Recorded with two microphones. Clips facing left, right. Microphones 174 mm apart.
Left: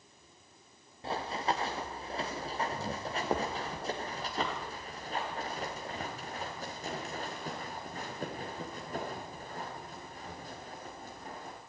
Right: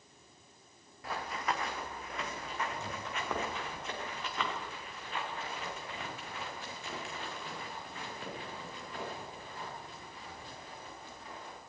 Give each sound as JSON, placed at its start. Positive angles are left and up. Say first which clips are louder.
{"t": 1.0, "sound": "running footsteps", "louder": "left 3 dB", "side_deg": 30, "distance_m": 3.0}